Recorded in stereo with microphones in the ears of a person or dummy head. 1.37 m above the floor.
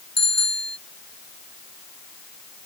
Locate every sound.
0.2 s a bicycle bell: centre (ahead or behind)